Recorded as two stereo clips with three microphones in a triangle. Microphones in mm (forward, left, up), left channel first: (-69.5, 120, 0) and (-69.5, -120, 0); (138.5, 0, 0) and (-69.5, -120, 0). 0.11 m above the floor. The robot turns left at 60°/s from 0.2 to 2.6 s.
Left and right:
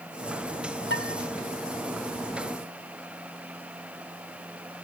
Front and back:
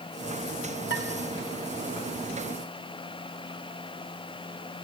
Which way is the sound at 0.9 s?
60° left.